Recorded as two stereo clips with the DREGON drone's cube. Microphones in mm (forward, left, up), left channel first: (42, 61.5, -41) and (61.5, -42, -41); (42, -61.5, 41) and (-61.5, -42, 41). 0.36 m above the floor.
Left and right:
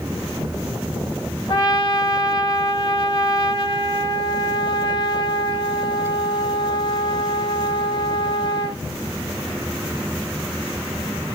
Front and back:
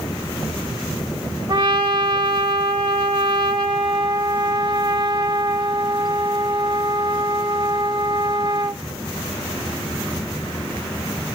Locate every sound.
1.5 s a trumpet: 135° left, 0.6 m